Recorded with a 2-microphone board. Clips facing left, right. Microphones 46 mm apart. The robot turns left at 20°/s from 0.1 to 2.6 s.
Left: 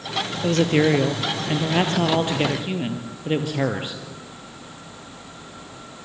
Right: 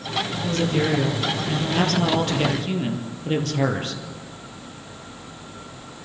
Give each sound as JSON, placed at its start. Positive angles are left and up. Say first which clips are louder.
{"t": 0.4, "sound": "a woman speaking", "louder": "left 5 dB", "azimuth_deg": 60, "distance_m": 3.0}